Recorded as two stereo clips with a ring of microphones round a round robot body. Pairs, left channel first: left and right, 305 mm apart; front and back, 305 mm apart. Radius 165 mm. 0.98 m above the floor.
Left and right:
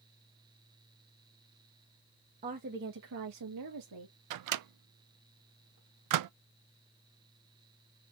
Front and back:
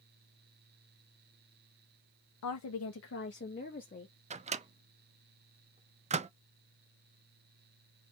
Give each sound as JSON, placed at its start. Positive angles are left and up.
{"t": 2.4, "sound": "a woman speaking", "azimuth_deg": -25, "distance_m": 0.9}
{"t": 4.3, "sound": "a microwave", "azimuth_deg": -110, "distance_m": 0.5}